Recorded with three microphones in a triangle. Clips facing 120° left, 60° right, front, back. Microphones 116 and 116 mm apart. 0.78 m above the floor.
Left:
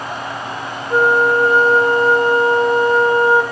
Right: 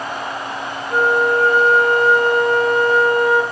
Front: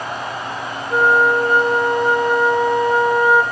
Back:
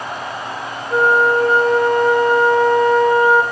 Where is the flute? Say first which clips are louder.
Left 2 dB, back 1 dB; 70° left, 0.6 m.